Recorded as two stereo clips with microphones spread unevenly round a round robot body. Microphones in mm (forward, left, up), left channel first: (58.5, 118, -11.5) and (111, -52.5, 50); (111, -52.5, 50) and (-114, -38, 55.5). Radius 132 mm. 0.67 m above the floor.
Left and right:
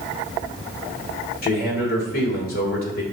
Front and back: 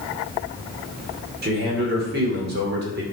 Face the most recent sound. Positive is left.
turn(degrees=130)